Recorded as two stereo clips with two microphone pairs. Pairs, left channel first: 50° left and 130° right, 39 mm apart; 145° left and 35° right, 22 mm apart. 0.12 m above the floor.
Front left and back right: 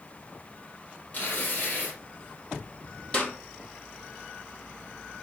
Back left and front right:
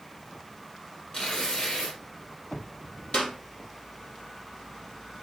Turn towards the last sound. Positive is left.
turn(degrees=115)